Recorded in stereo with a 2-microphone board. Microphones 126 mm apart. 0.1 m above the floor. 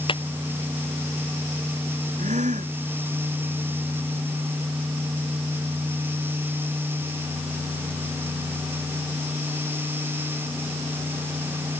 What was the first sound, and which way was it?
A clap, 40° left (ahead or behind).